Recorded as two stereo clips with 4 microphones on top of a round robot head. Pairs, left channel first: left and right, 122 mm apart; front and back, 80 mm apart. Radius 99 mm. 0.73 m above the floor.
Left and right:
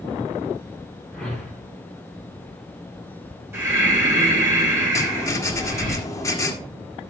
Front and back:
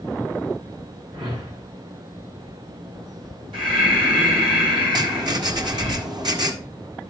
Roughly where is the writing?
Behind left.